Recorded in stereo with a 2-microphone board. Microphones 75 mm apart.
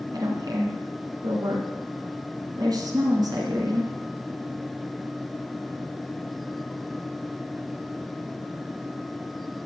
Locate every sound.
0.1 s a woman speaking: 65° right (ahead or behind), 2.5 m